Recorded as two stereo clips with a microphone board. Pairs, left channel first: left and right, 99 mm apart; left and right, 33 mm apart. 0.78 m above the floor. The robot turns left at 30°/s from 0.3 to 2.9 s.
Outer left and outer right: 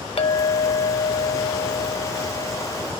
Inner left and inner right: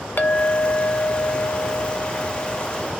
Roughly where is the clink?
Left.